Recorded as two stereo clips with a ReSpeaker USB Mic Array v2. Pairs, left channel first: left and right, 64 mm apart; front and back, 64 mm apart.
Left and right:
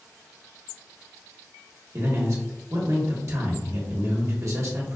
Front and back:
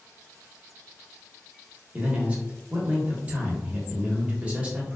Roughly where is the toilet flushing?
I don't hear a toilet flushing.